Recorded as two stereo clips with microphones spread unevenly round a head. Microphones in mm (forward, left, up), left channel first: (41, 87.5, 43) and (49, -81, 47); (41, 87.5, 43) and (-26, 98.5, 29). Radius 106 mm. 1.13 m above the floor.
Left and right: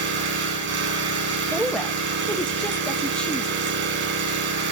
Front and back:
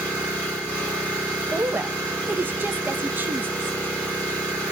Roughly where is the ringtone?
I don't hear a ringtone.